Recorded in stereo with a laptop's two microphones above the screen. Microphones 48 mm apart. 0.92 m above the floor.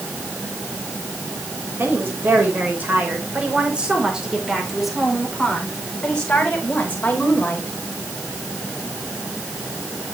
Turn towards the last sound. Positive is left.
turn(degrees=40)  # may be behind; listen again after turning